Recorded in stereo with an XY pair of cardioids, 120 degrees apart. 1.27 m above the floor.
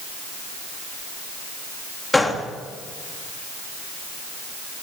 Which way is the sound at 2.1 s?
15° left.